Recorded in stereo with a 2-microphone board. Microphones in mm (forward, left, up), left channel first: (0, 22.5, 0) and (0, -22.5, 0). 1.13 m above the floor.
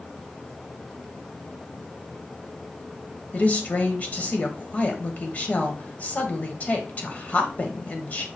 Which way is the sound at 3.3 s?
40° left (ahead or behind).